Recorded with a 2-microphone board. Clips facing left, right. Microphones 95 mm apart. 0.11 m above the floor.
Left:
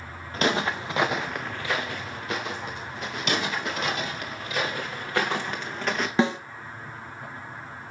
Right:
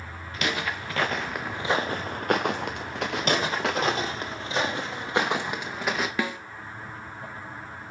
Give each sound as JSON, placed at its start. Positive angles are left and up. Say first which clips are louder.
{"t": 0.3, "sound": "footsteps", "louder": "left 5 dB", "side_deg": 35, "distance_m": 1.3}
{"t": 3.2, "sound": "footsteps", "louder": "right 2 dB", "side_deg": -40, "distance_m": 2.0}
{"t": 6.2, "sound": "a snare drum", "louder": "left 6 dB", "side_deg": 30, "distance_m": 0.7}